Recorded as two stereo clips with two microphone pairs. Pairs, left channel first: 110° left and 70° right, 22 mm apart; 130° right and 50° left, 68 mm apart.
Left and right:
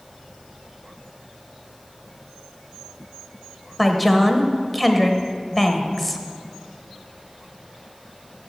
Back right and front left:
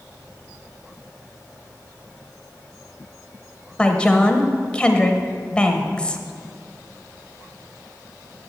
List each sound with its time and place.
3.8 s a woman speaking: 160° right, 0.9 m